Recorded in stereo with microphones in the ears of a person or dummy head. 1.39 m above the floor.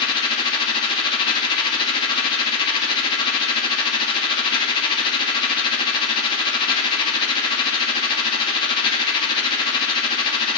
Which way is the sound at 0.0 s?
30° left (ahead or behind).